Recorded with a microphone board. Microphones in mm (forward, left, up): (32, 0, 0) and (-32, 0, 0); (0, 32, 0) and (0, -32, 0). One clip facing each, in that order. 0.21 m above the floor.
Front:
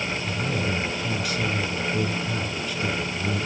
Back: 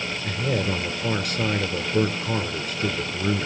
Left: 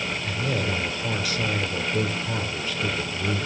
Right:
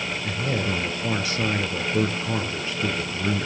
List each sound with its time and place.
0.2 s a man speaking: 150° right, 2.5 m